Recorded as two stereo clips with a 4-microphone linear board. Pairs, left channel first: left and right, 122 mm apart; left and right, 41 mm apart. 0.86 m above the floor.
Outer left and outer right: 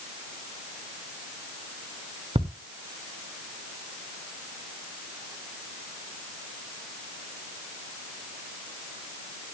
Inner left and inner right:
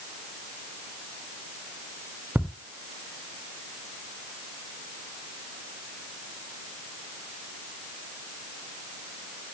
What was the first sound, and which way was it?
Ticking, 55° right (ahead or behind).